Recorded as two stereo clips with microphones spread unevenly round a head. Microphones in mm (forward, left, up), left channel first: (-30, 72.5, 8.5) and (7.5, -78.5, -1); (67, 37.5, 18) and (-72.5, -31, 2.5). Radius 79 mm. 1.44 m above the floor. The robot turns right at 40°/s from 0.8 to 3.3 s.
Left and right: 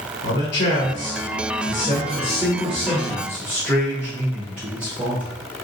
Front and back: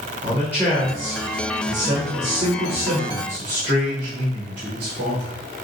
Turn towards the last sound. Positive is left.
turn(degrees=-155)